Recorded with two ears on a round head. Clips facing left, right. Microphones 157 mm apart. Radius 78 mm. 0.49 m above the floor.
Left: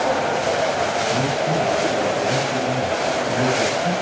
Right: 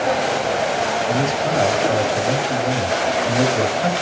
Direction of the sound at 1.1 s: 60° right (ahead or behind).